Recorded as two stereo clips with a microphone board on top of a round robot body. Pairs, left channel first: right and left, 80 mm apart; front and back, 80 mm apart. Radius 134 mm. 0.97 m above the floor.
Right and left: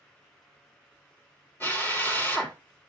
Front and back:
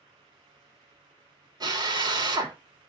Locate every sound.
1.6 s a drill: 155° right, 3 m